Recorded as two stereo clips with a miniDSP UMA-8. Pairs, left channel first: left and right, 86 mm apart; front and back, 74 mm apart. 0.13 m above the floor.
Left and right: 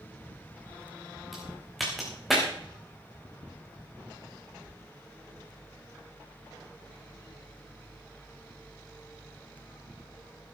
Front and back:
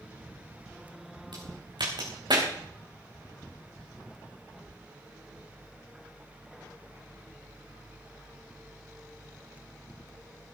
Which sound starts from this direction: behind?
A crack, at 1.3 s.